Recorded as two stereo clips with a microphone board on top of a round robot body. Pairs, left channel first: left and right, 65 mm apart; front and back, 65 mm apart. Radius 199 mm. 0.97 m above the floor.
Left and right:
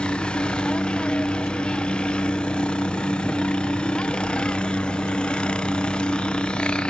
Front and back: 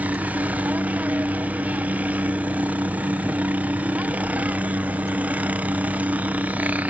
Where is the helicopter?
145° left.